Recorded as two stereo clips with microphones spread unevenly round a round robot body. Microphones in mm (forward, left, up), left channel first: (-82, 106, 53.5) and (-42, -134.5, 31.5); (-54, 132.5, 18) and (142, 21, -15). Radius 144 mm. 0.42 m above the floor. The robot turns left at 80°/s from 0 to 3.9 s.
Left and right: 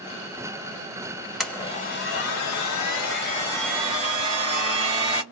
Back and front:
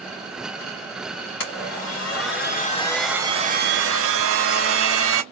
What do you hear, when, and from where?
1.4 s a blender: 170° right, 2.0 m; by 5.2 s 10° right, 2.0 m